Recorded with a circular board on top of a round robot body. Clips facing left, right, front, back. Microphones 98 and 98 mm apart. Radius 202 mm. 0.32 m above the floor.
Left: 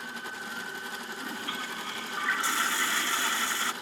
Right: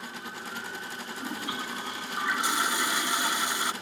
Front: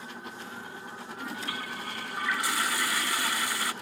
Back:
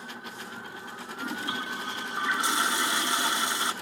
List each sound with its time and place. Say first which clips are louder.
1.2 s a toilet flushing: right 4 dB, back 4 dB; 145° right